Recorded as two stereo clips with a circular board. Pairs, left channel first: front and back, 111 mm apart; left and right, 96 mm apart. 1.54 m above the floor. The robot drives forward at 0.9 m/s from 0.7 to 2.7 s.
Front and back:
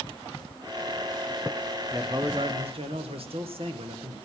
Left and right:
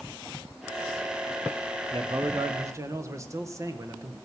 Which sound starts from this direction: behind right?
A man speaking, at 1.9 s.